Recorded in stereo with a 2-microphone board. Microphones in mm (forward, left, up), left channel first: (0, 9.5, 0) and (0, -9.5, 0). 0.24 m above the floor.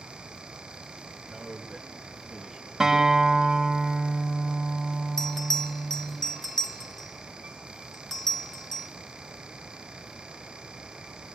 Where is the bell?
30° left (ahead or behind), 1.8 m.